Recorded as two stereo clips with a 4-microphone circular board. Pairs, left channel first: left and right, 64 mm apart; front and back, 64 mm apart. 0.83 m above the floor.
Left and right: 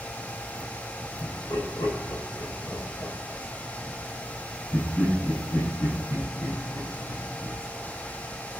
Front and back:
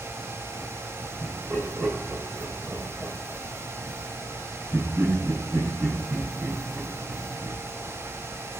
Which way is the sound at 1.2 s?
120° left.